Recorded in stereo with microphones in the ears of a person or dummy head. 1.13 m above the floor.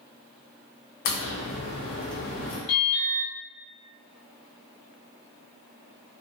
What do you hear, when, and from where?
1.1 s a crack: 50° left (ahead or behind), 0.6 m
2.7 s an alarm: 35° left (ahead or behind), 1.3 m